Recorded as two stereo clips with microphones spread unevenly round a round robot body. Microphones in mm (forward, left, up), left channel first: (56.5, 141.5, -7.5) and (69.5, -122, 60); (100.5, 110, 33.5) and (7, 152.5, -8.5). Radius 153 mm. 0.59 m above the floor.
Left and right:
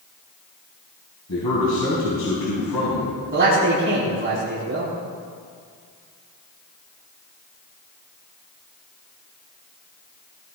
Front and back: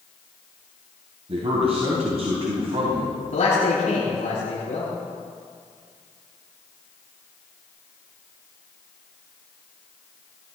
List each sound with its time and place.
1.3 s a man speaking: 135° left, 3.5 m
3.3 s a man speaking: 40° right, 5.5 m